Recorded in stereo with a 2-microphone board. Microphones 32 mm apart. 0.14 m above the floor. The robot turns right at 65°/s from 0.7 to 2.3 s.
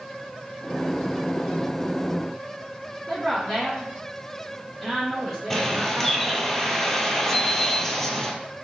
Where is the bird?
15° left (ahead or behind), 0.6 m.